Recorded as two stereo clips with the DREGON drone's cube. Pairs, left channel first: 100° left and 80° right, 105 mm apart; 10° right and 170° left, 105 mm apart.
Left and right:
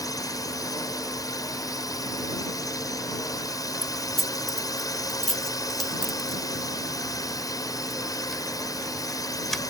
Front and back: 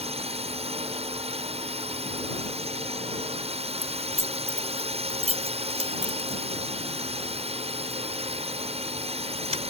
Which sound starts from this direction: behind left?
A drone, at 0.0 s.